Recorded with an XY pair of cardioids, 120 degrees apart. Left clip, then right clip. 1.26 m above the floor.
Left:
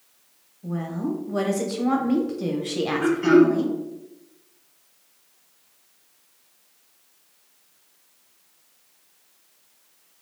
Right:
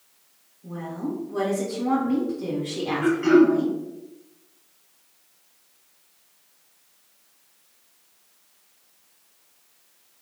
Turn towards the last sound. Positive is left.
turn(degrees=10)